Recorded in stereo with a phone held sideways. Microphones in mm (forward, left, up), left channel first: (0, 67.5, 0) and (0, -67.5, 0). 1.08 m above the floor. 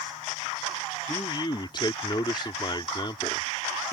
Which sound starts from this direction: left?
A man speaking, at 1.1 s.